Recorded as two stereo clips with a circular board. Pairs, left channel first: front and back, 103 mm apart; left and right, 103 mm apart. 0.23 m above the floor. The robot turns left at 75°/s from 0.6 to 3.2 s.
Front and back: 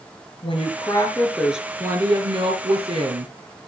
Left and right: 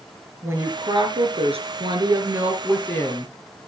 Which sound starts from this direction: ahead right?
A woman speaking, at 0.4 s.